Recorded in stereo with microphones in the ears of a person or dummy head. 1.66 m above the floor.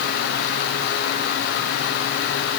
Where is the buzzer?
No buzzer in this recording.